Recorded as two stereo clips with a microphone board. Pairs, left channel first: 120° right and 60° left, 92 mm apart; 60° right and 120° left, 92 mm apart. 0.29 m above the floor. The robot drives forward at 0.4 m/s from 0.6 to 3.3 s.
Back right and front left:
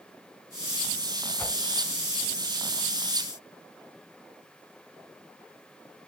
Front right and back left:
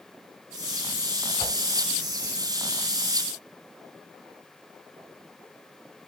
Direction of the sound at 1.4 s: 55° right.